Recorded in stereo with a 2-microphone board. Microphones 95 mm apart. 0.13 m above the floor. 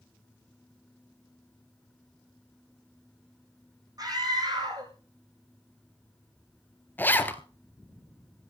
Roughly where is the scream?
Right.